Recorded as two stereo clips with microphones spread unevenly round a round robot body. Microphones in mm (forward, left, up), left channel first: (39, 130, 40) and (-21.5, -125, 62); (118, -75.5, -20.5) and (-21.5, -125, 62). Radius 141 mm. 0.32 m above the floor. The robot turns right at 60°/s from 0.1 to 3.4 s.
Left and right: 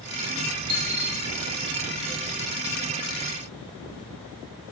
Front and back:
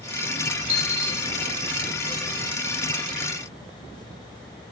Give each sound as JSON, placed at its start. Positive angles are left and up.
{"t": 0.7, "sound": "a dropped coin", "azimuth_deg": -115, "distance_m": 1.3}